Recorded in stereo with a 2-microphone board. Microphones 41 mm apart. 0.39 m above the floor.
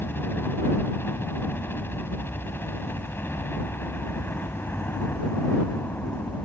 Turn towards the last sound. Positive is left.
turn(degrees=55)  # may be behind; listen again after turning